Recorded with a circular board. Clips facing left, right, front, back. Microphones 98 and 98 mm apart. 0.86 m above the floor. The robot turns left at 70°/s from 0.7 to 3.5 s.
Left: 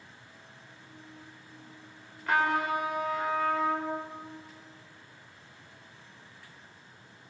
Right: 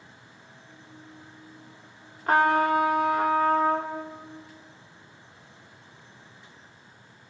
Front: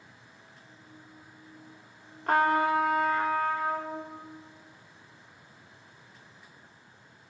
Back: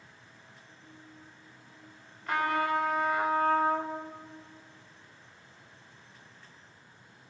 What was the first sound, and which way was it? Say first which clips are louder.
A trumpet: right 6 dB, front 5 dB; 35° right.